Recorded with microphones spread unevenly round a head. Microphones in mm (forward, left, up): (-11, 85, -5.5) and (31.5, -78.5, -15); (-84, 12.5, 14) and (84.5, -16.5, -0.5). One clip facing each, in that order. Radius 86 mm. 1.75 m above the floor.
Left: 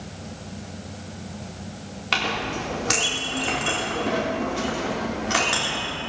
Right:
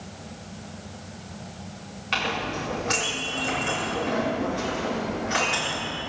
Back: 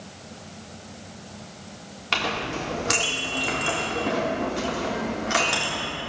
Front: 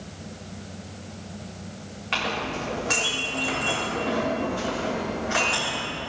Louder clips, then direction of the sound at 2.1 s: Left 1 dB, back 1 dB; 135° left.